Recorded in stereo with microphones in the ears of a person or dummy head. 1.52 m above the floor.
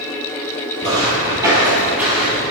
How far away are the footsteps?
About 2.5 m.